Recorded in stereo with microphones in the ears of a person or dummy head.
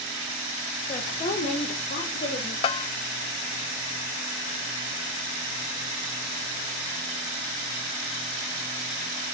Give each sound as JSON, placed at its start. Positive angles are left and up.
{"t": 0.9, "sound": "a woman speaking", "side_deg": 25, "distance_m": 1.6}
{"t": 2.6, "sound": "a bell", "side_deg": 30, "distance_m": 0.5}